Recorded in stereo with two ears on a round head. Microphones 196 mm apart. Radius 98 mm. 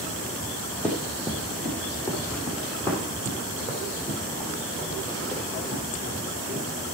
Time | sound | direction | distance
0.8 | running footsteps | 10° left (ahead or behind) | 3.5 m